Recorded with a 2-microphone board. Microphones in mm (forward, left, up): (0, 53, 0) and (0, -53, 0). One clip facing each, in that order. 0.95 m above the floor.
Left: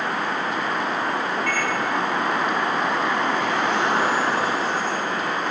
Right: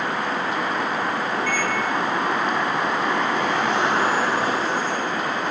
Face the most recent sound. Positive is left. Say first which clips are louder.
# right 1 dB
turn(degrees=-5)  # may be behind; listen again after turning